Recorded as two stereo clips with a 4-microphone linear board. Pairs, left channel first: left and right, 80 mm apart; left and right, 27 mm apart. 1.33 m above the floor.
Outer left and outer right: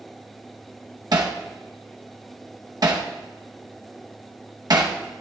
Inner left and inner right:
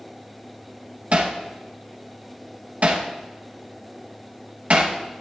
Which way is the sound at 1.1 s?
60° right (ahead or behind).